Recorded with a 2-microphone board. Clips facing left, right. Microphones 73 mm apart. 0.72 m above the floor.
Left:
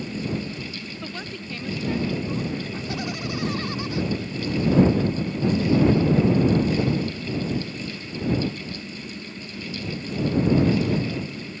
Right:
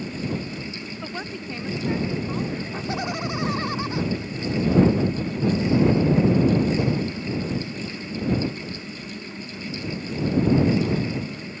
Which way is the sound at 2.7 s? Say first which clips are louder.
Right 2 dB; 30° right (ahead or behind).